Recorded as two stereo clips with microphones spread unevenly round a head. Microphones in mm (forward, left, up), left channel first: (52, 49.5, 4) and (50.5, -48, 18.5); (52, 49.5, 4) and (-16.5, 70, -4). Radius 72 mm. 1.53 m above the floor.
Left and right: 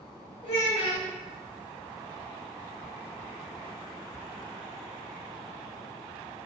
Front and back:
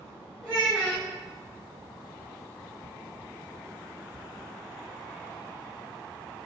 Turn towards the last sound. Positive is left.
turn(degrees=80)